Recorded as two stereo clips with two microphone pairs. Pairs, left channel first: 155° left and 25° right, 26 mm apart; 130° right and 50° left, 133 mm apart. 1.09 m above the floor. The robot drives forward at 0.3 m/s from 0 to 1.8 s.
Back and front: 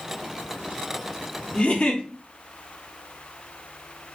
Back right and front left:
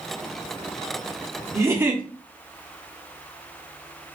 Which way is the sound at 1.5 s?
115° left.